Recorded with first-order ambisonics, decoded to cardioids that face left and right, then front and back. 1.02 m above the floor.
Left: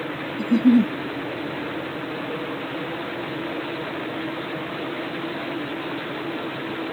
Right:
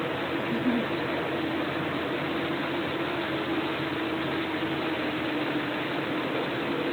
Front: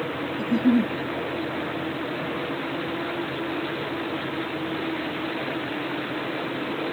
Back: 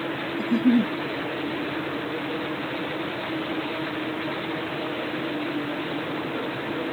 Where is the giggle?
95° left.